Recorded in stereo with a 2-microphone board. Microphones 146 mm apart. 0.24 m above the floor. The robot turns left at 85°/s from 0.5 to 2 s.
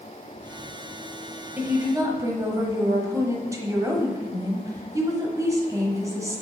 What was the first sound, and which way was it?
A woman speaking, 10° right (ahead or behind).